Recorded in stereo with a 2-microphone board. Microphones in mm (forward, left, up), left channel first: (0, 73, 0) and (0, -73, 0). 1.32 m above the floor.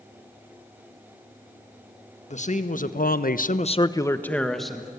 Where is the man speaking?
55° left (ahead or behind), 1.7 m; by 4.9 s 5° right (ahead or behind), 2.0 m.